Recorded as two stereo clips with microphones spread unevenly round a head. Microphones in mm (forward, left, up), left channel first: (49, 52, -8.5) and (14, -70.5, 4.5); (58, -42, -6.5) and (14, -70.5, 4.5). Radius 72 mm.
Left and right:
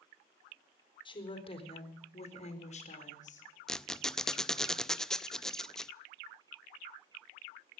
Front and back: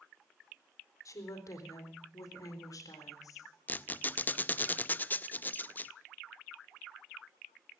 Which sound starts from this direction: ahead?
A squeak, at 3.7 s.